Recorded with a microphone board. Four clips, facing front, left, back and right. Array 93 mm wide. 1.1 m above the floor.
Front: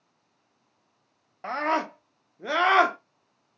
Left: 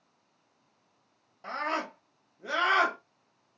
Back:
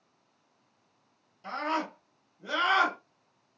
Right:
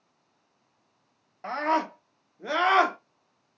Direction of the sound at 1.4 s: 25° right.